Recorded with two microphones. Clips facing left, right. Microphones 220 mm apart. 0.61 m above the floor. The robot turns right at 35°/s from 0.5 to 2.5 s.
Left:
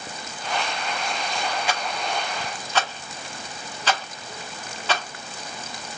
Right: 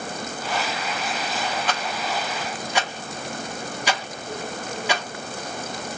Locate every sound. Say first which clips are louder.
1.7 s a rattle: right 1 dB; 10° left (ahead or behind), 0.8 m; by 5.0 s 15° right (ahead or behind), 0.8 m